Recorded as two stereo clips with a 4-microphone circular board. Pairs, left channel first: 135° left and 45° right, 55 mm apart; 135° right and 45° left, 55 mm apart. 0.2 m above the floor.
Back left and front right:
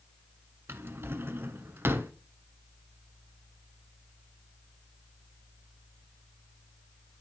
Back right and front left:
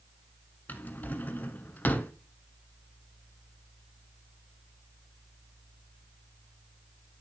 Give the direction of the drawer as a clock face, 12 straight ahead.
3 o'clock.